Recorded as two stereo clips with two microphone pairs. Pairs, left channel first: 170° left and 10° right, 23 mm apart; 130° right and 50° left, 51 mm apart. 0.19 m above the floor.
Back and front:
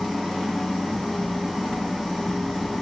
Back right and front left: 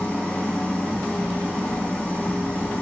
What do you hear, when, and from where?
0.0 s an engine running: 165° right, 1.4 m